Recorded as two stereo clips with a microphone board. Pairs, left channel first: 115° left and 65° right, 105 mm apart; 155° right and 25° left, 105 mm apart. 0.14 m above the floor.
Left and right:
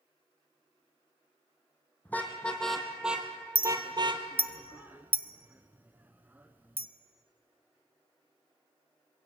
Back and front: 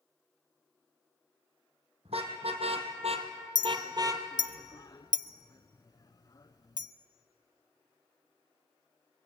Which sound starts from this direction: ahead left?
A car horn, at 2.0 s.